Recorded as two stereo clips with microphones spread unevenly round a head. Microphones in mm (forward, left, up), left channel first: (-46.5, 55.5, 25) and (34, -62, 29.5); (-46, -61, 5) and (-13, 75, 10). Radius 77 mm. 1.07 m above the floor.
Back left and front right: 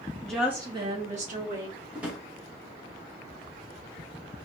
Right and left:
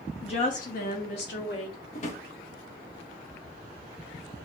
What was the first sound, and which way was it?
A woman speaking, 160° right.